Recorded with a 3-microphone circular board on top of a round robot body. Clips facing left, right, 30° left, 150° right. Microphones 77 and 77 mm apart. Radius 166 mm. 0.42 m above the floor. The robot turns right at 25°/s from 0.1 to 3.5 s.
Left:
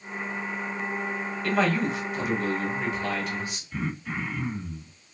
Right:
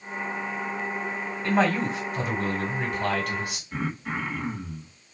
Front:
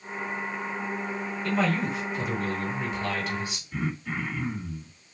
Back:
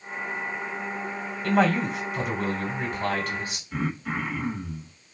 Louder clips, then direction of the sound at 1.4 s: Right 1 dB, back 5 dB; 160° right.